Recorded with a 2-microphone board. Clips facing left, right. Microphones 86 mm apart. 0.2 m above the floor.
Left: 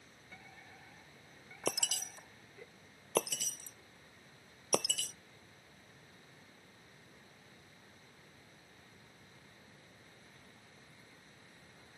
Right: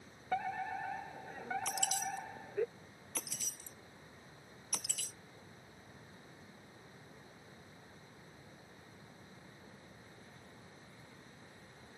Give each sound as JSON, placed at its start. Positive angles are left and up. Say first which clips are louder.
{"t": 0.3, "sound": "a fire alarm", "louder": "right 21 dB", "side_deg": -65}
{"t": 1.7, "sound": "breaking glass", "louder": "right 2 dB", "side_deg": 70}